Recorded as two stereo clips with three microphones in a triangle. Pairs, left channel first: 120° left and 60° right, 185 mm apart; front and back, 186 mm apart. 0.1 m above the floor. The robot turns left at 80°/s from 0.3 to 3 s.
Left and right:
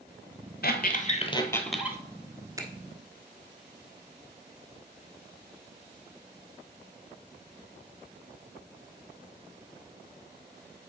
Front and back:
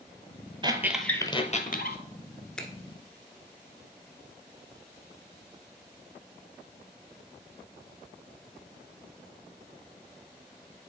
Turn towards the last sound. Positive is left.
turn(degrees=-110)